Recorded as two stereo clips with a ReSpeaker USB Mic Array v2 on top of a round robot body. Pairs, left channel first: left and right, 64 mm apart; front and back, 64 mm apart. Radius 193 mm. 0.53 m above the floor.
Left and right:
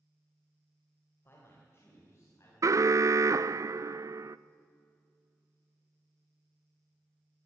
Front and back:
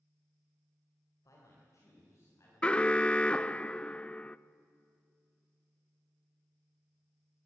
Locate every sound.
1.2 s a man speaking: 35° left, 3 m; by 2.5 s 45° left, 5 m
2.6 s an alarm: 70° right, 0.5 m